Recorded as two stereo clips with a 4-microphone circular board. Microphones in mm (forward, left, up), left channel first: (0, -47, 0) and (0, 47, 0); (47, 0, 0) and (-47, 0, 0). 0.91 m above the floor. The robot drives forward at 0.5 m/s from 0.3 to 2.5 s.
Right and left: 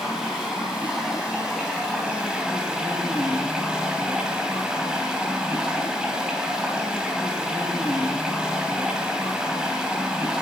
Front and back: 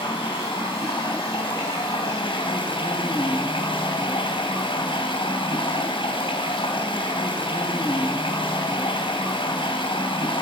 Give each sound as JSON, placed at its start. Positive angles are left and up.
{"t": 0.0, "sound": "running water", "azimuth_deg": 5, "distance_m": 4.0}